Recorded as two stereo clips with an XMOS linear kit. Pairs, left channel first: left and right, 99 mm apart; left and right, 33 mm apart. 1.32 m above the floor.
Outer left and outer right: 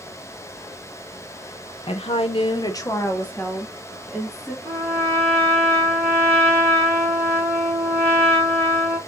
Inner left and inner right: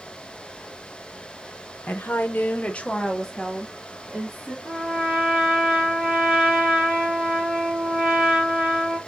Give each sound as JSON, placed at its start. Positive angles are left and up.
{"t": 1.9, "sound": "a woman speaking", "side_deg": 70, "distance_m": 0.8}
{"t": 4.7, "sound": "a trumpet", "side_deg": -25, "distance_m": 3.5}